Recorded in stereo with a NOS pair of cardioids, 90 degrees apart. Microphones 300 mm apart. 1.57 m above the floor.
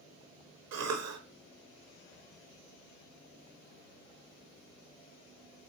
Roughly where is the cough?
Ahead right.